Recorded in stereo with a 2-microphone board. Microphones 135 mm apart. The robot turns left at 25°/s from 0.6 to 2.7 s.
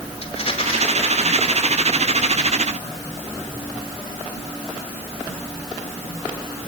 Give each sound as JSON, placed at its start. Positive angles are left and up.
{"t": 0.2, "sound": "a rattle", "side_deg": 50, "distance_m": 4.5}